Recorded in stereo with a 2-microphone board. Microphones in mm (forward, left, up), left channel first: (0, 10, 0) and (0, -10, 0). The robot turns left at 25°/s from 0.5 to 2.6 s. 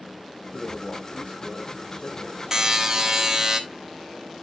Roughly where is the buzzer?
Right.